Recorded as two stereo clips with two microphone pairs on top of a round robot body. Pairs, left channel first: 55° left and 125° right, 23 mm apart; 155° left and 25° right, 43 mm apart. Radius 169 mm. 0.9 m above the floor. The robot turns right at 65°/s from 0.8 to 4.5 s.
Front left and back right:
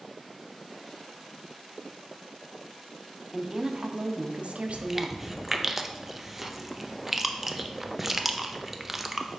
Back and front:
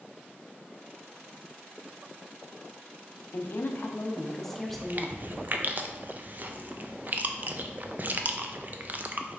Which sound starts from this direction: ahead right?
Chewing, at 4.7 s.